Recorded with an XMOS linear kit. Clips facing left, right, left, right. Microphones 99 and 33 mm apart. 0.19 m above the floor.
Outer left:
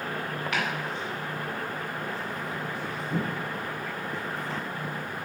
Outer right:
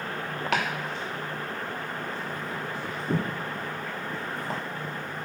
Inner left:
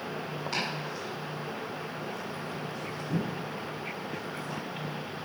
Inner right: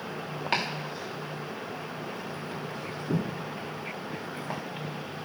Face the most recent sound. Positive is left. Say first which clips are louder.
# outer right 3 dB, inner right 4 dB
turn(degrees=-75)  # may be behind; listen again after turning